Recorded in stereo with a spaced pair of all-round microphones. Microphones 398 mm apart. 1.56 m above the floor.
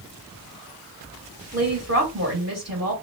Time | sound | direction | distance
1.5 | a woman speaking | 35° right (ahead or behind) | 1.1 m